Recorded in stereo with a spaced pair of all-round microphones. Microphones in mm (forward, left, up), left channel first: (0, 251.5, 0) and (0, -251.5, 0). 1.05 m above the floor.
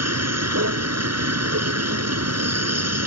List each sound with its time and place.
0.0 s a vehicle: 30° right (ahead or behind)